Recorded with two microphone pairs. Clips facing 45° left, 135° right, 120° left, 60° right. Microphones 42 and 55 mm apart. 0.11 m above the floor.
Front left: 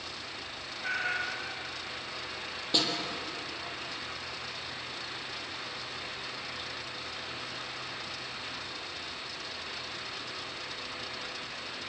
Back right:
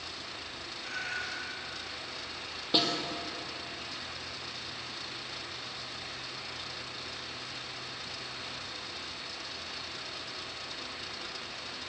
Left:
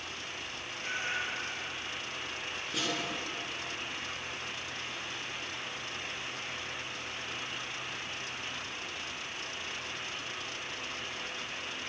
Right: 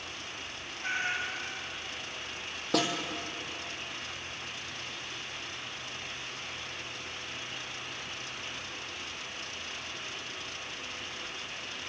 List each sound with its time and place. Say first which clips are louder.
0.8 s a cat meowing: front left 5 dB, right 3 dB; straight ahead, 7 m
2.7 s a snare drum: back right 1 dB, right 7 dB; 55° right, 4.5 m